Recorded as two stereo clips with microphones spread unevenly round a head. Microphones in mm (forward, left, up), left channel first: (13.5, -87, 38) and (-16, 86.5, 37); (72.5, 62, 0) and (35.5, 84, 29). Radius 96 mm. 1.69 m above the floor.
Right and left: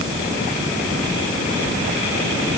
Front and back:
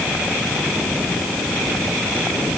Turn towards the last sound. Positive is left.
No sound to turn to.